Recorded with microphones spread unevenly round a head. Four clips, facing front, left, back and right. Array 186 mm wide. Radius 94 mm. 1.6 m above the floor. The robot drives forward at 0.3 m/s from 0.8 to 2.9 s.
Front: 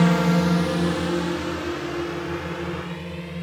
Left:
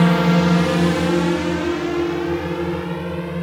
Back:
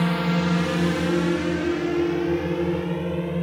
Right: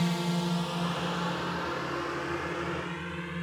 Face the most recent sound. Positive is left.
turn(degrees=145)